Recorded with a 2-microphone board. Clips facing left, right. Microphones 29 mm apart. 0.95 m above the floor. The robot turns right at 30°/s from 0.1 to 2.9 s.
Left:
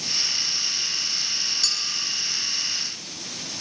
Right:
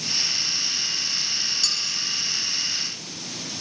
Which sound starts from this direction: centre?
A clink, at 1.6 s.